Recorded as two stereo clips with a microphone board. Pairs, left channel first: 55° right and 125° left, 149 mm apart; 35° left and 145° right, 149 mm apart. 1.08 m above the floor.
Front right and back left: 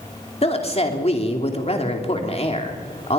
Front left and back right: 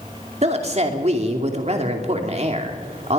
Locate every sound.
0.4 s a woman speaking: 105° right, 2.5 m